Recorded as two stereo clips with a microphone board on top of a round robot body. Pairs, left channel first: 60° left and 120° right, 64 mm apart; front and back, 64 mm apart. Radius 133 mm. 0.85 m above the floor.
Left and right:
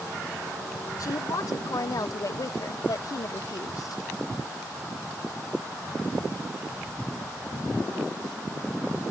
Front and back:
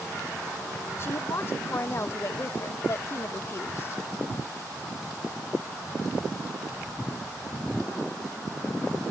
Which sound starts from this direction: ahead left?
A woman speaking, at 1.0 s.